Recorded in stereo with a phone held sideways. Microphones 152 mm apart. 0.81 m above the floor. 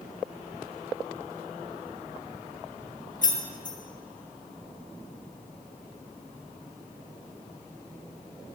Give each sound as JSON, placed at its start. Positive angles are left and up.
{"t": 3.2, "sound": "keys jangling", "side_deg": 60, "distance_m": 1.0}